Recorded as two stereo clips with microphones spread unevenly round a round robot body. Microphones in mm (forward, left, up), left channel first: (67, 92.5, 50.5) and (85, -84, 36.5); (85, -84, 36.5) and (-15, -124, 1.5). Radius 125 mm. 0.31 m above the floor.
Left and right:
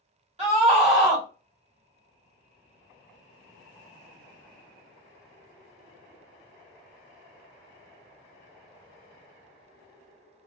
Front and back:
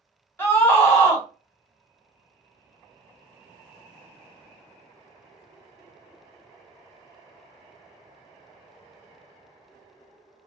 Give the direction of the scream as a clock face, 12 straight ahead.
2 o'clock.